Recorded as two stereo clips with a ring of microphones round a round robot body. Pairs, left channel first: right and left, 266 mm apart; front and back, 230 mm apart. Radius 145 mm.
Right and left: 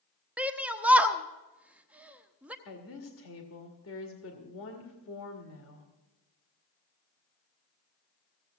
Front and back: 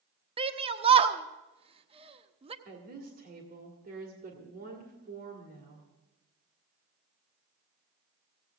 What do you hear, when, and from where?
0.4 s a shout: 170° left, 0.9 m
2.6 s a woman speaking: 125° right, 2 m